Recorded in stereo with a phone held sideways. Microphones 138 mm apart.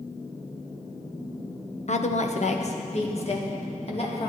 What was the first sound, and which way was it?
A woman speaking, 55° left (ahead or behind).